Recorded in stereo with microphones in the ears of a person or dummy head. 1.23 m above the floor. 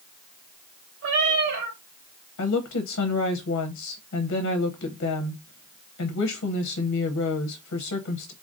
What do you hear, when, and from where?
1.0 s a cat meowing: 70° right (ahead or behind), 3 m
2.4 s a woman speaking: 70° left (ahead or behind), 0.7 m